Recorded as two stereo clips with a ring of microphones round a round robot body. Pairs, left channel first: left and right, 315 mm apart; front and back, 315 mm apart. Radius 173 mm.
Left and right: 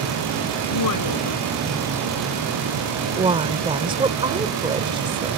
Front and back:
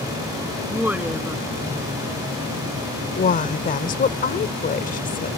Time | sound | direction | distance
0.7 | a woman speaking | 95° left | ?
3.2 | a woman speaking | 30° right | ?